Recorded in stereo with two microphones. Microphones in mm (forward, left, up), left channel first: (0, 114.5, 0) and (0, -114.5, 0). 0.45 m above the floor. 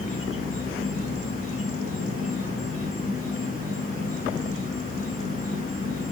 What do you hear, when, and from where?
0.0 s an insect: 65° left (ahead or behind), 2.5 m